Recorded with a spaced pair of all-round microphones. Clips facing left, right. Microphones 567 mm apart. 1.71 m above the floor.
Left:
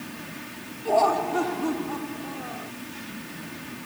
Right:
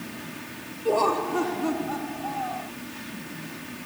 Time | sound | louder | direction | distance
0.8 | laughter | even | 10° left (ahead or behind) | ?